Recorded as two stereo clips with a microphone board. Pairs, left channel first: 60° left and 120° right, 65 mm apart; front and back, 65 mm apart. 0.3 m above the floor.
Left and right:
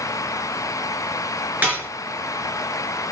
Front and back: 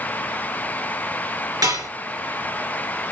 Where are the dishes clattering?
175° left, 3 m.